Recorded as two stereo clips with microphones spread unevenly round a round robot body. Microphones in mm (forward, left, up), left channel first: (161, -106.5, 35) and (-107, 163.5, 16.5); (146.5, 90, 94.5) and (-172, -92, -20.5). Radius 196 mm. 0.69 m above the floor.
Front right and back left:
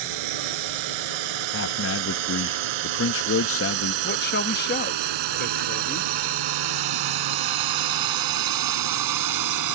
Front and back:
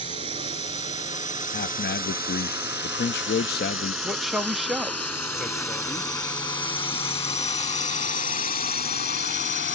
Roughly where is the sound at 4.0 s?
Right.